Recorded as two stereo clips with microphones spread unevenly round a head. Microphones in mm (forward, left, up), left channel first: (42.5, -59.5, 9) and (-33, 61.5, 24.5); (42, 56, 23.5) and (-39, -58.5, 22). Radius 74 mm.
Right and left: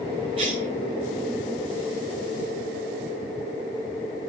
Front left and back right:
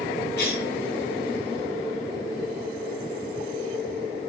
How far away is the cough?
About 8.5 m.